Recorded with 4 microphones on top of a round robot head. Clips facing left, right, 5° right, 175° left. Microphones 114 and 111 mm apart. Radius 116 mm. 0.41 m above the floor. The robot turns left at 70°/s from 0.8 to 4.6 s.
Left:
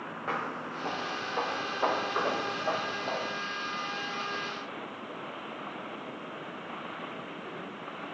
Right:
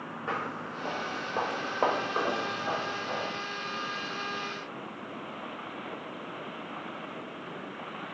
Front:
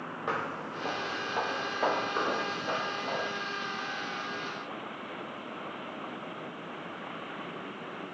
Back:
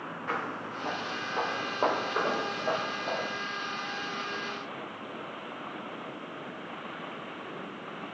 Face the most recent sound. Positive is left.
turn(degrees=0)